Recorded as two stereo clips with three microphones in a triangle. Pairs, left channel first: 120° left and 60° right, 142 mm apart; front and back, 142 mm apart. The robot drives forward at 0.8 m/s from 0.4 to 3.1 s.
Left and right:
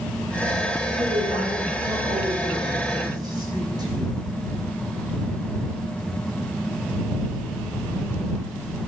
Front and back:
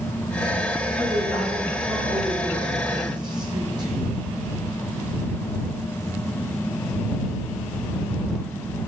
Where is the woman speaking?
100° right, 3.5 m; by 4.2 s 125° right, 4.5 m.